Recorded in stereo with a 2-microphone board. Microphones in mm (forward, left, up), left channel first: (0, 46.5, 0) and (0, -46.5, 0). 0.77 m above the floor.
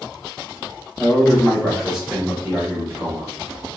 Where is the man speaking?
20° left (ahead or behind), 1.0 m; by 3.3 s 30° right (ahead or behind), 1.1 m.